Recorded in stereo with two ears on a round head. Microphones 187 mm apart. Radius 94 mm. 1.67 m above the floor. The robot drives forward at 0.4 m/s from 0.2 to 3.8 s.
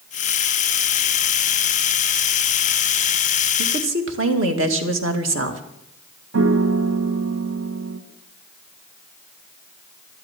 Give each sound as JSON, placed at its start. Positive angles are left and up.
{"t": 3.6, "sound": "a woman speaking", "side_deg": -65, "distance_m": 2.0}
{"t": 6.3, "sound": "a piano", "side_deg": -75, "distance_m": 1.7}